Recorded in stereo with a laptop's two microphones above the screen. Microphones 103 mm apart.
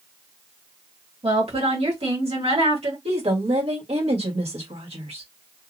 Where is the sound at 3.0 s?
75° right (ahead or behind), 1.4 m.